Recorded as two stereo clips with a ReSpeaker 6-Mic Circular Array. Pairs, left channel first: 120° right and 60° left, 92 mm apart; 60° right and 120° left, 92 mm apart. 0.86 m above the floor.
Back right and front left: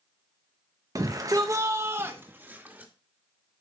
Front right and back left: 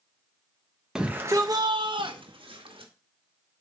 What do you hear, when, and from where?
0.9 s a shout: 40° left, 0.5 m; by 2.9 s 135° left, 1.4 m